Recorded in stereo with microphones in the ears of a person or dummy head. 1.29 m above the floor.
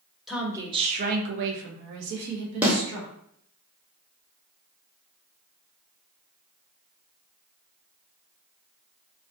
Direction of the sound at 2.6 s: 5° right (ahead or behind).